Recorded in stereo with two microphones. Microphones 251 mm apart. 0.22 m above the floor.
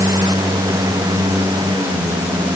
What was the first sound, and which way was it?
Only background noise.